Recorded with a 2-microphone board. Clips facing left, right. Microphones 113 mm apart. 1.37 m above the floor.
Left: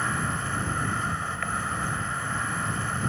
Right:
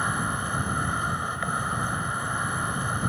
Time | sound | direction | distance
0.0 | an insect | 15° right (ahead or behind) | ?